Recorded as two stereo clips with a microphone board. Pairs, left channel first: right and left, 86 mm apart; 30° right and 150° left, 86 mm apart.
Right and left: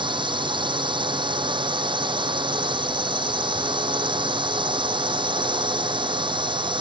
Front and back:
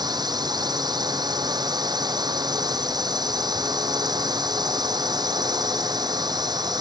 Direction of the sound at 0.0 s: 110° left.